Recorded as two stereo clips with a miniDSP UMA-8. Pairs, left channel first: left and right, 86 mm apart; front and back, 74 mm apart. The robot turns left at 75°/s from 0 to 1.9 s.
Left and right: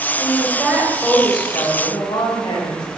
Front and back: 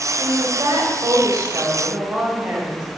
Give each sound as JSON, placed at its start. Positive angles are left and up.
{"t": 0.2, "sound": "a woman speaking", "azimuth_deg": -130, "distance_m": 1.5}